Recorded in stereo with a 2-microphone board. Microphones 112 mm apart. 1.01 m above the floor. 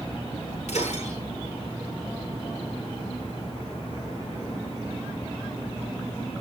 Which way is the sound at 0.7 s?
90° left.